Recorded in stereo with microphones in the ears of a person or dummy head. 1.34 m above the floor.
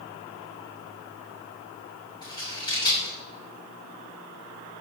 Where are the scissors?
25° left (ahead or behind), 3.5 m.